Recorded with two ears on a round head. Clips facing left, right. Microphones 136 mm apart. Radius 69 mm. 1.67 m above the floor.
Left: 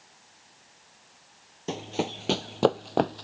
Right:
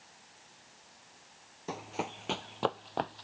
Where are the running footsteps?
30° left (ahead or behind); by 3.2 s 55° left (ahead or behind).